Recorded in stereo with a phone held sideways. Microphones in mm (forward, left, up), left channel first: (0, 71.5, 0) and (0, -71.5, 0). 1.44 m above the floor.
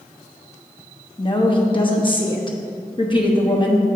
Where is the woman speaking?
35° left (ahead or behind), 0.9 m.